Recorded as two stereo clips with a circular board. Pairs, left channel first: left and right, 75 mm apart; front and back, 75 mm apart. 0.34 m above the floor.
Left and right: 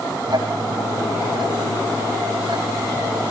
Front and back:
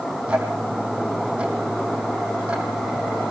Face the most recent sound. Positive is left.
turn(degrees=-105)